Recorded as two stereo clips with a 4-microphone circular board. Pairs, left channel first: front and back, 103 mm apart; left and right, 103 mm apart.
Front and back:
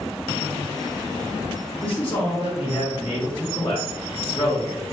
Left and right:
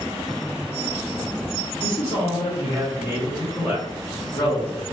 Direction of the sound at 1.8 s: 60° left.